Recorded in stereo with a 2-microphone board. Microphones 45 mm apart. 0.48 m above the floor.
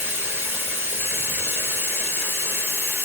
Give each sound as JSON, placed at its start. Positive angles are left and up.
{"t": 0.0, "sound": "running water", "side_deg": -50, "distance_m": 1.0}